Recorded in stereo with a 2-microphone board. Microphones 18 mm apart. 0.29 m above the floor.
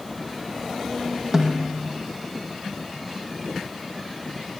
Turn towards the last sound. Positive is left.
turn(degrees=-25)  # may be behind; listen again after turning